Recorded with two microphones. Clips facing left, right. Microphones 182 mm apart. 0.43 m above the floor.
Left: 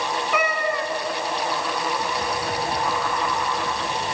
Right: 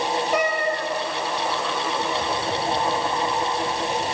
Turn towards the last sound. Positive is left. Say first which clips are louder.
# left 1 dB
turn(degrees=-40)  # may be behind; listen again after turning